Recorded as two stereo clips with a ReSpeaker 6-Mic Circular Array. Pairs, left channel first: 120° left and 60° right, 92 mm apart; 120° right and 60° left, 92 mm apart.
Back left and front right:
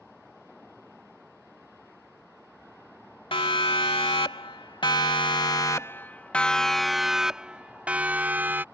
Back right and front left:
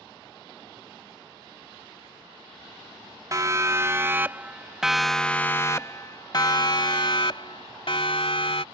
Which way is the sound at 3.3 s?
110° left.